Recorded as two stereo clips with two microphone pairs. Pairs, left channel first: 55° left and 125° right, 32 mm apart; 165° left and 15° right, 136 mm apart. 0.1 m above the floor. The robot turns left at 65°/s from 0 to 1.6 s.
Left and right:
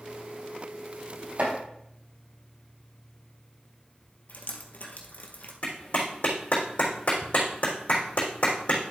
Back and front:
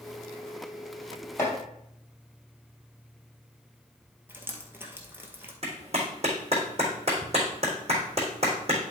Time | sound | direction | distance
1.4 | chopping | 125° right | 3 m
4.3 | dripping | 55° left | 1.5 m
5.6 | a clap | 20° left | 3.5 m